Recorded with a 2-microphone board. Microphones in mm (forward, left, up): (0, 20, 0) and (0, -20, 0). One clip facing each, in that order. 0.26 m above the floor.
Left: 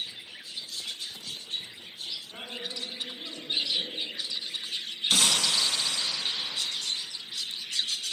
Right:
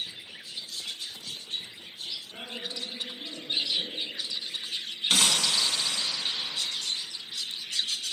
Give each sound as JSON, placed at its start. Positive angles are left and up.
{"t": 2.3, "sound": "a woman speaking", "side_deg": 60, "distance_m": 2.0}
{"t": 5.1, "sound": "breaking glass", "side_deg": -40, "distance_m": 1.5}